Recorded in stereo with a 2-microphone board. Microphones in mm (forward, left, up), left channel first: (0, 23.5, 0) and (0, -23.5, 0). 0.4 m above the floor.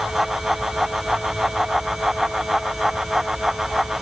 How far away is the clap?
I don't hear a clap.